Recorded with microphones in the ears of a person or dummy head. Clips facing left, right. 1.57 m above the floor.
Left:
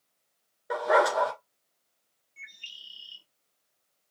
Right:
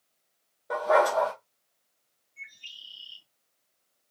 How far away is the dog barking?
About 2.5 m.